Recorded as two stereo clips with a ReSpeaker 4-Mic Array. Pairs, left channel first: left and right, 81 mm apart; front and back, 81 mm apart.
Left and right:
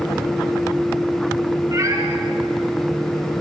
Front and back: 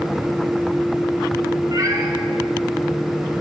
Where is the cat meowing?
135° right, 3.5 m.